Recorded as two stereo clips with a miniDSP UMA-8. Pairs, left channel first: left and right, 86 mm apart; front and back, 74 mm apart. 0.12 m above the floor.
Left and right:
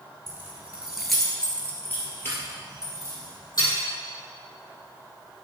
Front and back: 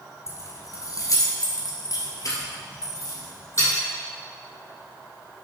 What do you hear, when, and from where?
0.3 s keys jangling: 35° right, 1.5 m; by 3.7 s 45° left, 3 m